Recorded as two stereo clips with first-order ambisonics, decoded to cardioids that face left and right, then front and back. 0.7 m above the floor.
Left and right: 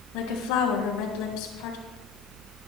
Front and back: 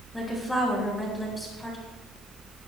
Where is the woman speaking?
90° left, 4.5 m.